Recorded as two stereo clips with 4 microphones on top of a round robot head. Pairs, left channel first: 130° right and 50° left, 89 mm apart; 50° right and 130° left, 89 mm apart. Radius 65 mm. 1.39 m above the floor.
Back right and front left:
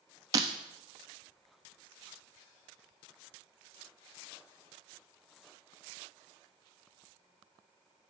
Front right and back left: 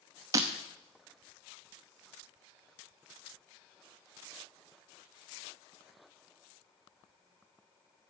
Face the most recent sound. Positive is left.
turn(degrees=90)